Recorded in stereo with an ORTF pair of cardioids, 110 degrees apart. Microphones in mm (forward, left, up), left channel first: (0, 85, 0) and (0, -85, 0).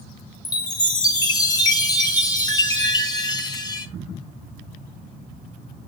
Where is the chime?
25° left, 0.8 m.